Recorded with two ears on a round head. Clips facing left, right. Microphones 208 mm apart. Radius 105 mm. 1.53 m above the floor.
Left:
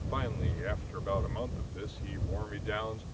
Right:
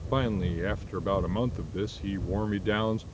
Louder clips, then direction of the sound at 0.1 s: Right 10 dB; 60° right (ahead or behind).